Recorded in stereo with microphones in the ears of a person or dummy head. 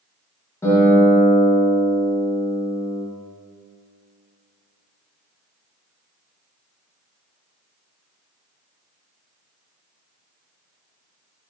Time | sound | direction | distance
0.6 | a guitar | 10° left (ahead or behind) | 2 m